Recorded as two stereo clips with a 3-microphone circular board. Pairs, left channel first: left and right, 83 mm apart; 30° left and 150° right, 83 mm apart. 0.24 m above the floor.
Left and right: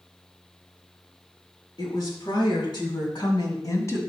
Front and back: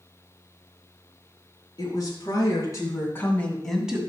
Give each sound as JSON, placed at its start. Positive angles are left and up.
{"t": 1.8, "sound": "a woman speaking", "azimuth_deg": 60, "distance_m": 4.0}